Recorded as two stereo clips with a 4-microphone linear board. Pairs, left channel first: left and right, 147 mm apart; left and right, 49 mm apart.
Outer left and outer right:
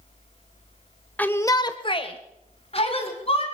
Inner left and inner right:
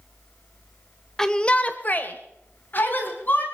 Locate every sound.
1.2 s a shout: 10° left (ahead or behind), 1.3 m; by 3.4 s 40° left (ahead or behind), 3 m